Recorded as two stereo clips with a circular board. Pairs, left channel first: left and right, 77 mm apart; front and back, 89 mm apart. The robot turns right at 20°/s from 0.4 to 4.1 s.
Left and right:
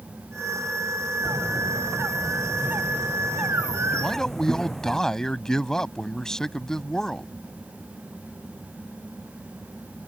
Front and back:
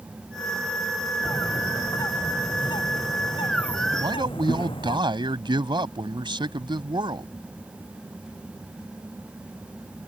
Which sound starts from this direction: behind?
A man speaking, at 4.0 s.